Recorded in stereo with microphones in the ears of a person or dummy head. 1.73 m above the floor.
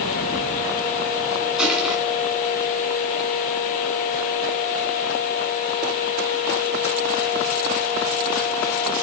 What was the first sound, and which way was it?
Crushing, 5° right (ahead or behind).